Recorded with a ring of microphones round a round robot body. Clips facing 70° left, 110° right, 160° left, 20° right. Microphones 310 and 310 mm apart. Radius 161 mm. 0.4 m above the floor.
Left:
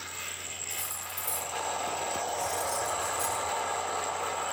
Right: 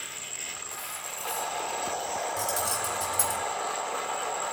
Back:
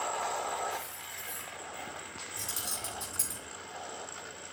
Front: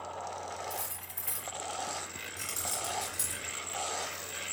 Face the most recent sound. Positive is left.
turn(degrees=-125)